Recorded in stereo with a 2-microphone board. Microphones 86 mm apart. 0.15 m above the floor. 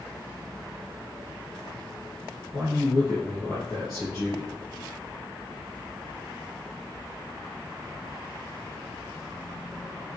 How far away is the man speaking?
About 3.5 m.